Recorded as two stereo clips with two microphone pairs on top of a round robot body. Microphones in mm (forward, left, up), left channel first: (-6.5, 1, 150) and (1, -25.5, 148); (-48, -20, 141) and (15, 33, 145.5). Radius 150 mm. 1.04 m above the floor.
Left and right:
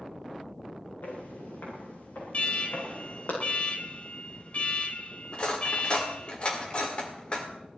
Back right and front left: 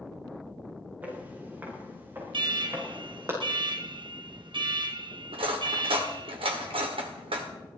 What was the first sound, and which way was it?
Footsteps, 110° left.